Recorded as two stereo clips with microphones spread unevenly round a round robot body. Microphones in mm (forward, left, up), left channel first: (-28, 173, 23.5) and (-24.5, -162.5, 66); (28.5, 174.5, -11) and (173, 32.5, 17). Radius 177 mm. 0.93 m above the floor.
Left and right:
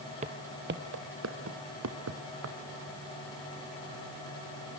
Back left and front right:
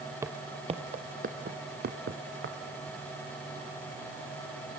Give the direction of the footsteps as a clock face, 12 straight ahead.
3 o'clock.